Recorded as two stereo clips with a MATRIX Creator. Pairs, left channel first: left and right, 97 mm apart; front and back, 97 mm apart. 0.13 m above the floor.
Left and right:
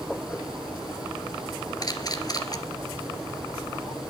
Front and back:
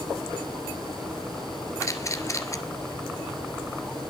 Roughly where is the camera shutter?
Ahead left.